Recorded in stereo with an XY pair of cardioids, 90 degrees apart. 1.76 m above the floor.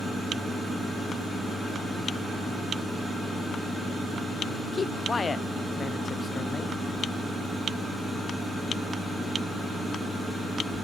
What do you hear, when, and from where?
4.7 s a man speaking: 35° left, 0.8 m